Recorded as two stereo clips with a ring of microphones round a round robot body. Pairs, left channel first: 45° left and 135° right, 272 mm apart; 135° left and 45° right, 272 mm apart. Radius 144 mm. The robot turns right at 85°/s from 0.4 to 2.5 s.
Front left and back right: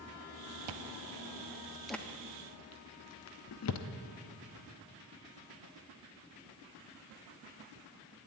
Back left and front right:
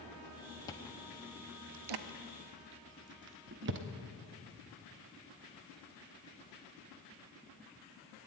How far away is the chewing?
About 0.6 m.